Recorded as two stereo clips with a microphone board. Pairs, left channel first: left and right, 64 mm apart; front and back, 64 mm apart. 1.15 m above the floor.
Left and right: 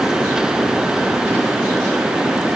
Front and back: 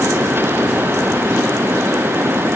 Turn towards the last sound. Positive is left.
No sound to turn to.